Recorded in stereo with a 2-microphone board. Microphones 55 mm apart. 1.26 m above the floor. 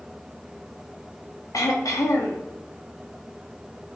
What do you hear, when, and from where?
1.5 s throat clearing: 90° left, 0.6 m